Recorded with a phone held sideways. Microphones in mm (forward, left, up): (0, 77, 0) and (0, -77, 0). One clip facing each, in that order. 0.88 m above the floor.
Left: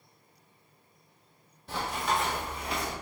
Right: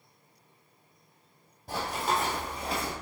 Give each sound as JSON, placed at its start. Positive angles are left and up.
{"t": 1.7, "sound": "running footsteps", "side_deg": -45, "distance_m": 2.0}